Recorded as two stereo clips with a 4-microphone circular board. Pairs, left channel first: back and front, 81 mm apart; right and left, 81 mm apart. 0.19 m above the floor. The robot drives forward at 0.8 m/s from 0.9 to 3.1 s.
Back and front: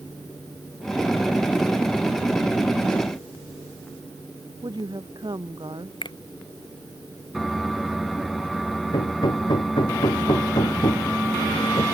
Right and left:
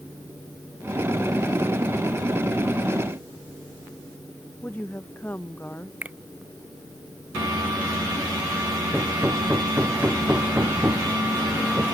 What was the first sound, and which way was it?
A woman speaking, 25° right.